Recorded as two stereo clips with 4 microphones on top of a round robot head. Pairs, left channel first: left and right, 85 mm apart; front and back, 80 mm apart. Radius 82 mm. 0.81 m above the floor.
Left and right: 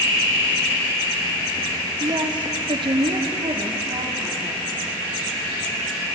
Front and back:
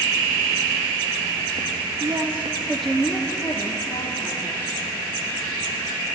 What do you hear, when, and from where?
2.0 s a woman speaking: 130° right, 2.0 m; by 4.7 s 40° right, 3.5 m